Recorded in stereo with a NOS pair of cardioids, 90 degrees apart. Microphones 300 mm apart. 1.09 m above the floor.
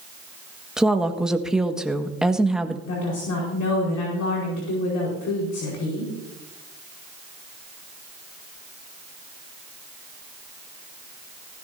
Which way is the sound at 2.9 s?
70° left.